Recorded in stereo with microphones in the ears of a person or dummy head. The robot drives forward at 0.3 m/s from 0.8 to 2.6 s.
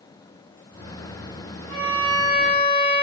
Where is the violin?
65° left (ahead or behind), 1.4 m; by 3.0 s 60° left (ahead or behind), 1.5 m.